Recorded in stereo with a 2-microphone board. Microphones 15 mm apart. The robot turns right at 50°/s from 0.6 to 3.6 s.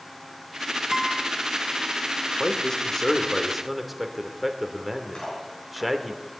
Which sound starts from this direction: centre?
A guitar, at 0.9 s.